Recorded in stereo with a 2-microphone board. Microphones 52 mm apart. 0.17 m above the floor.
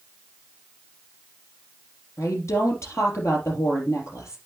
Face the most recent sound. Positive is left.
turn(degrees=70)  # may be behind; listen again after turning